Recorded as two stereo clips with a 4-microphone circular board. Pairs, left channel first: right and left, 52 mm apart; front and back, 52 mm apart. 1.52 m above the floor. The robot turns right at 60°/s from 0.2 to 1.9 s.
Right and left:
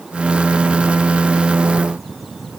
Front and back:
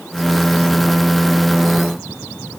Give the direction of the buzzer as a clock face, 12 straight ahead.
No buzzer in this recording.